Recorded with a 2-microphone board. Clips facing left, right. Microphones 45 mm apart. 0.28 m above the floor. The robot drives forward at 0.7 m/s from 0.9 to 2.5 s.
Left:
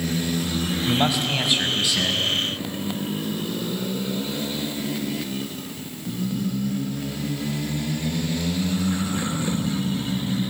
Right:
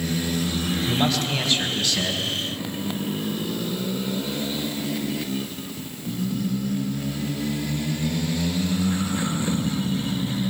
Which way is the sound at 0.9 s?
15° left (ahead or behind).